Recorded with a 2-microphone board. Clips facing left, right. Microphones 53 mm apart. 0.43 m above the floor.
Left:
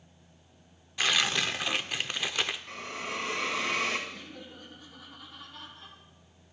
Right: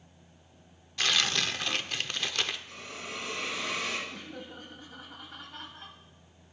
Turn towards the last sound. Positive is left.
turn(degrees=-55)  # may be behind; listen again after turning